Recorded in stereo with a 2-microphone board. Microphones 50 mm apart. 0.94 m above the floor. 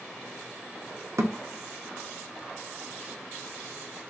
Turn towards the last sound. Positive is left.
turn(degrees=-65)  # may be behind; listen again after turning